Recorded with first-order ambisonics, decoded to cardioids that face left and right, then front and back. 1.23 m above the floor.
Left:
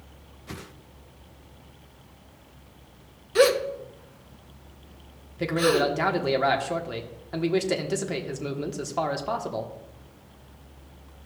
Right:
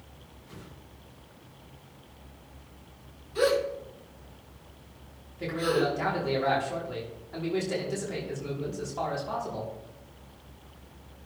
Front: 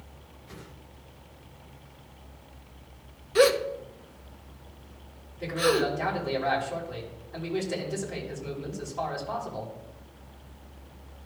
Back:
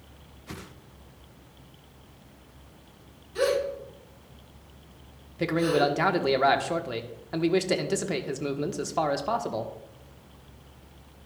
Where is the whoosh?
125° left, 0.5 m.